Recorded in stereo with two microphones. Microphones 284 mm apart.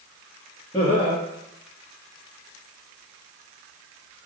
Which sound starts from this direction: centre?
Laughter, at 0.7 s.